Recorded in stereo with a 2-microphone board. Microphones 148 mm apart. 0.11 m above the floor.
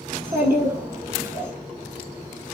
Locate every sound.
0.1 s a child speaking: 20° right (ahead or behind), 0.6 m